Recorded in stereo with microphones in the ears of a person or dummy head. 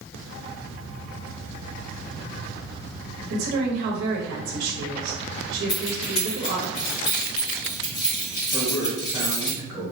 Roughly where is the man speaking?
Centre.